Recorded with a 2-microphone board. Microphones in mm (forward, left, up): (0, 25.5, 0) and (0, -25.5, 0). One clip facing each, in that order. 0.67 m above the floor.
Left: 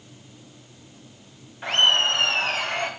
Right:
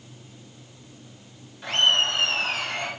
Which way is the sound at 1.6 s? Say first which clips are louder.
Left 2 dB; 30° left (ahead or behind).